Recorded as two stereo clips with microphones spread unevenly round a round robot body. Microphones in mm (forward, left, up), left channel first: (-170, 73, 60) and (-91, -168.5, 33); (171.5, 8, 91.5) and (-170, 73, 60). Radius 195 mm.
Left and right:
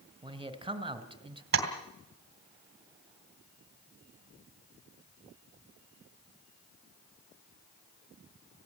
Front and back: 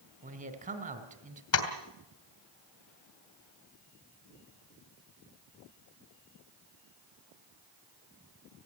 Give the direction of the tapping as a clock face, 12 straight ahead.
2 o'clock.